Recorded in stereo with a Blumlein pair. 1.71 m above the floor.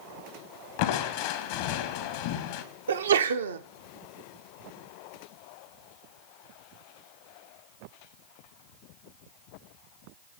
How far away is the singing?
I don't hear singing.